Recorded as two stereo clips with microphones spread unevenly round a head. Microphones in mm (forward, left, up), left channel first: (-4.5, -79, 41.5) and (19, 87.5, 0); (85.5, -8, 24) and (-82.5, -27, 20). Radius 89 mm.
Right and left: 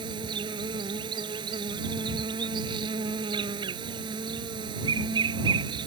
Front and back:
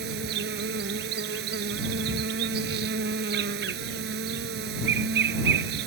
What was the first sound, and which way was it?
An insect, 155° left.